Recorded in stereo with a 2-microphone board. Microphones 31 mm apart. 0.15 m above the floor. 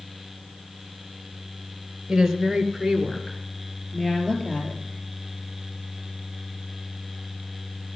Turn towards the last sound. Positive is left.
turn(degrees=25)  # may be behind; listen again after turning